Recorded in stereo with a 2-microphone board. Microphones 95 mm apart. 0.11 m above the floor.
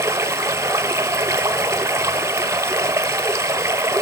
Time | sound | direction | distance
0.0 | running water | 30° right (ahead or behind) | 0.7 m